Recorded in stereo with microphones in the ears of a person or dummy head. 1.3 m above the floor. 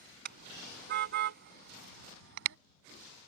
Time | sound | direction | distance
0.2 | a car horn | 55° right (ahead or behind) | ?